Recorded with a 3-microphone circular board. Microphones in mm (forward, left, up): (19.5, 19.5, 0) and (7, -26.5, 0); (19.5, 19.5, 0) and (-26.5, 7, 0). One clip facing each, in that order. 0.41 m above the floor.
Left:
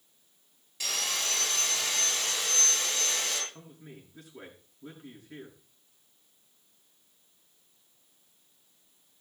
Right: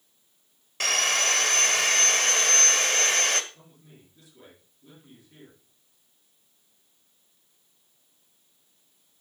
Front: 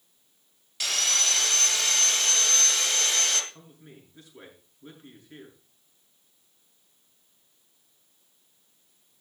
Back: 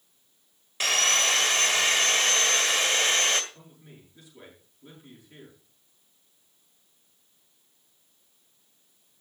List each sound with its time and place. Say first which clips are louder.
0.8 s sawing: right 9 dB, back 5 dB; 110° right, 1.8 m
3.5 s a man speaking: left 5 dB, front 1 dB; 65° left, 7 m